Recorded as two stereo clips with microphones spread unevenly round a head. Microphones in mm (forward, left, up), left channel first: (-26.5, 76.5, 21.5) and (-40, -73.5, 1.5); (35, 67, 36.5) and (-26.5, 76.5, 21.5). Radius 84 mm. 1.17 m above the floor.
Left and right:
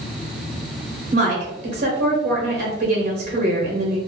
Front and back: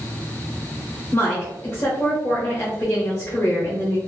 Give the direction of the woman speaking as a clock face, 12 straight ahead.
2 o'clock.